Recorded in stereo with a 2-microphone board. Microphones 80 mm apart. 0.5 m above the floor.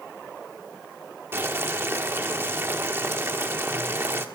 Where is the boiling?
30° right (ahead or behind), 1.2 m.